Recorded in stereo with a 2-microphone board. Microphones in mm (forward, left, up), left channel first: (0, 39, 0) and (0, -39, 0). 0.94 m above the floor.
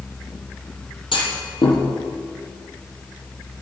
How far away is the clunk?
About 4.5 m.